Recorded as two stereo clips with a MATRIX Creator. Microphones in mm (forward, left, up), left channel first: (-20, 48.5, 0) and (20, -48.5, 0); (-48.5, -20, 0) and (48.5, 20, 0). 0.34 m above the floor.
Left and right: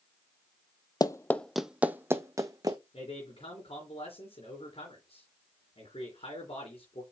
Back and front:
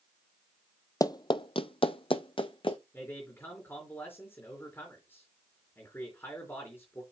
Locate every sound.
1.0 s running footsteps: 155° left, 0.5 m; by 2.8 s 120° right, 1.2 m
2.9 s a man speaking: 135° left, 3.5 m